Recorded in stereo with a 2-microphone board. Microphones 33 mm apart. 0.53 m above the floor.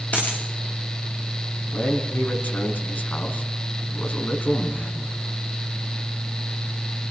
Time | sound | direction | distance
0.1 | a dropped coin | 50° left (ahead or behind) | 7 m
1.7 | a man speaking | 60° left (ahead or behind) | 5 m